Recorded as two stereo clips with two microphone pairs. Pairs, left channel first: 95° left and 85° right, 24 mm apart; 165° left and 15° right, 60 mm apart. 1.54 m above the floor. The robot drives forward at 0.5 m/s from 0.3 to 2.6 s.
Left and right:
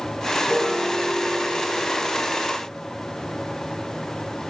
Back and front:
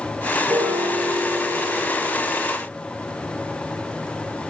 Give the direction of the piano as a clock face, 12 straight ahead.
1 o'clock.